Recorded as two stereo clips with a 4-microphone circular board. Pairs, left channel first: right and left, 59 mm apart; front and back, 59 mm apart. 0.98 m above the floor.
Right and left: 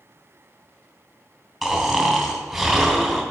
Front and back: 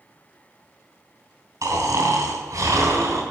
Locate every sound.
1.6 s snoring: straight behind, 2.5 m